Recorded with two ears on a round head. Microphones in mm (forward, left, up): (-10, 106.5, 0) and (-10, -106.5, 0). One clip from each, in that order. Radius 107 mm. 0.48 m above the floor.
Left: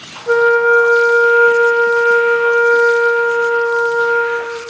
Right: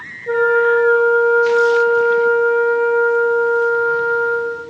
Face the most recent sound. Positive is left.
turn(degrees=30)  # may be behind; listen again after turning